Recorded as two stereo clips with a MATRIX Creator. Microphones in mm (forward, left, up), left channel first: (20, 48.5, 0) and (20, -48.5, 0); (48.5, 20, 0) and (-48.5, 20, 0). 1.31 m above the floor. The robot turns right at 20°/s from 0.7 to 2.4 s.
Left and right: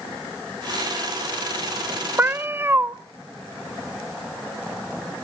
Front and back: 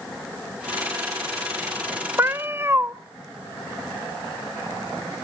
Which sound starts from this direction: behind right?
A cat meowing, at 2.2 s.